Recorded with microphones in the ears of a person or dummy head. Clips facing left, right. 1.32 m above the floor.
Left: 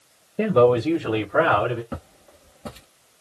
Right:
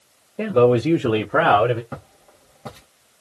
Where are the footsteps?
15° left (ahead or behind), 1.5 m.